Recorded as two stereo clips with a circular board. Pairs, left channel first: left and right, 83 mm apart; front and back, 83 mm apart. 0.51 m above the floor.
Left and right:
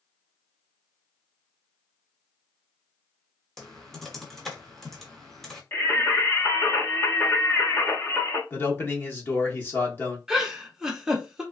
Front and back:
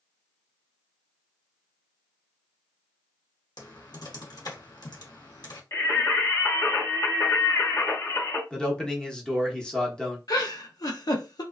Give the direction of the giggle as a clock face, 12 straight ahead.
12 o'clock.